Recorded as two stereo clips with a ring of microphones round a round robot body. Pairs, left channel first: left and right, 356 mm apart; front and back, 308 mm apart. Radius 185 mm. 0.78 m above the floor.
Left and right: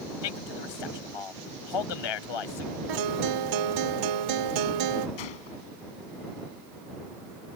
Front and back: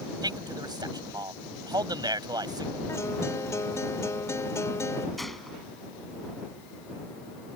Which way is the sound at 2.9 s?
80° right.